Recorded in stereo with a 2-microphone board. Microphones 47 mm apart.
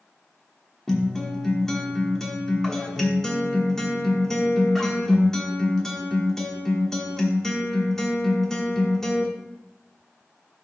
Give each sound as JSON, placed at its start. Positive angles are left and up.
{"t": 0.9, "sound": "a guitar", "side_deg": 10, "distance_m": 1.1}